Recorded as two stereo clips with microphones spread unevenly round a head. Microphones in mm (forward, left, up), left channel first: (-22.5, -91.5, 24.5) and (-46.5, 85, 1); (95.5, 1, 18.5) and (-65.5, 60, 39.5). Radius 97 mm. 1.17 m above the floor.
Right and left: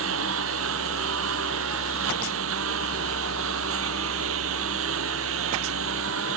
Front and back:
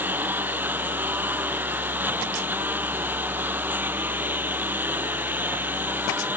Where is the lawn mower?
80° left.